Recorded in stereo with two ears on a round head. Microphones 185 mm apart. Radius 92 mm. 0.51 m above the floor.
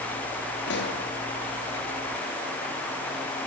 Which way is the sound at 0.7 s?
60° left (ahead or behind).